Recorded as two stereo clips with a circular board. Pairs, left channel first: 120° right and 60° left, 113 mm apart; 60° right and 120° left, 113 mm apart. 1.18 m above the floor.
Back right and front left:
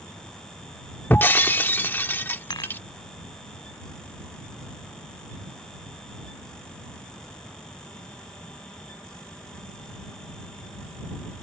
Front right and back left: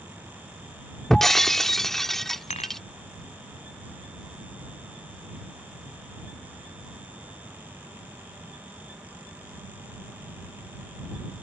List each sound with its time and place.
1.1 s breaking glass: 140° right
2.5 s dishes clattering: 70° right